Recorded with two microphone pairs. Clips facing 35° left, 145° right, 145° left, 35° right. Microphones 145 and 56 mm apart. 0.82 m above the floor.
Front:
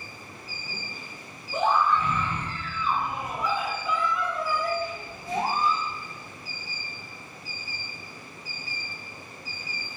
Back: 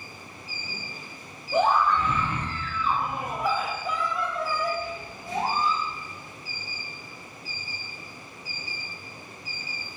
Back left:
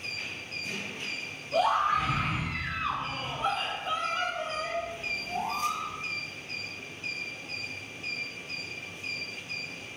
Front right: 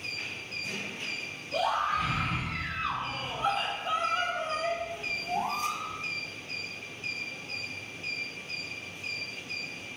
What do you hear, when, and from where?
1.5 s a scream: 150° right, 1.8 m; by 5.8 s 45° right, 1.2 m